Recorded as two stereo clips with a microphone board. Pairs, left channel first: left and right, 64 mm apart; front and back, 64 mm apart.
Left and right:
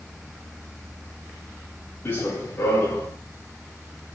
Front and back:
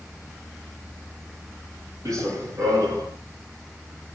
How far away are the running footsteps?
About 8 m.